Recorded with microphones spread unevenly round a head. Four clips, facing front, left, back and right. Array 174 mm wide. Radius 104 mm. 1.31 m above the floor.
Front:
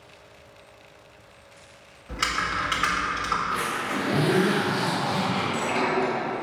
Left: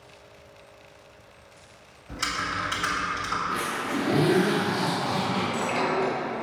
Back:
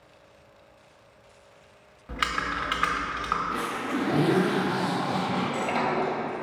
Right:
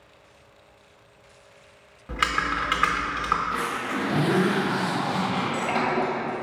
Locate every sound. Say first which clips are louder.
2.1 s typing on a keyboard: right 5 dB, front 1 dB; 85° right, 1.2 m
3.5 s a zipper: right 1 dB, front 1 dB; straight behind, 2 m
5.4 s a sliding door: right 1 dB, front 1 dB; 100° right, 2.0 m